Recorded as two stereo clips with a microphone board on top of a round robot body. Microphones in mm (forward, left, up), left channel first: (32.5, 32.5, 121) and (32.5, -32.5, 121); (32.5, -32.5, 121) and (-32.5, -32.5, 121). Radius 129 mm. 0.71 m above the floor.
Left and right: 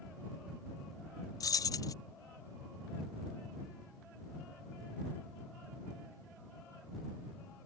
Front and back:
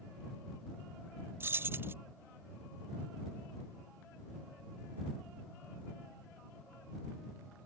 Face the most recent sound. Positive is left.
turn(degrees=120)